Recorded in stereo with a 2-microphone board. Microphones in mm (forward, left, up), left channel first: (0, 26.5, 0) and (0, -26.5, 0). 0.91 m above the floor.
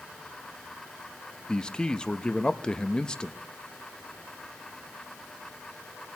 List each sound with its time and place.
1.5 s a man speaking: 20° left (ahead or behind), 0.6 m